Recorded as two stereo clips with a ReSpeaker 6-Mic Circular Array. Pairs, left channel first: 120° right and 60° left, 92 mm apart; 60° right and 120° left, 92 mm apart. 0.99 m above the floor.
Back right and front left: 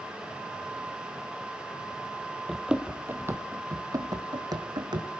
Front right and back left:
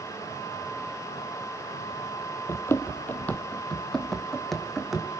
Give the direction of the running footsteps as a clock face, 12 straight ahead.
1 o'clock.